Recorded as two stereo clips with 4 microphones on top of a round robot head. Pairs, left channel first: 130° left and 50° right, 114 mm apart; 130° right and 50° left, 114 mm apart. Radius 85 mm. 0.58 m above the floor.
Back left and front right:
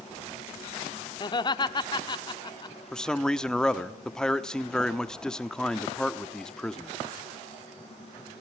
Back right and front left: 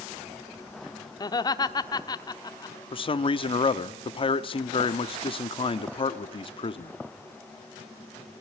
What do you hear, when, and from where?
1.2 s laughter: 175° left, 1.2 m
2.9 s a man speaking: 145° right, 1.1 m